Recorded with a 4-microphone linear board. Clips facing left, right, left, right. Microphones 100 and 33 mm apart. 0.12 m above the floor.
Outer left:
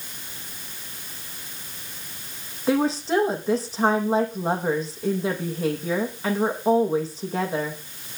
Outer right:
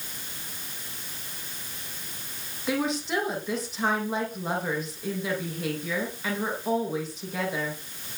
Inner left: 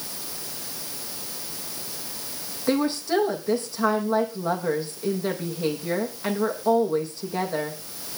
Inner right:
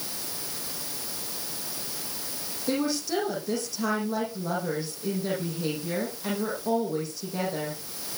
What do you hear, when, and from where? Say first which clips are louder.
2.7 s a woman speaking: outer left 6 dB, inner left 4 dB; 35° left (ahead or behind), 5.5 m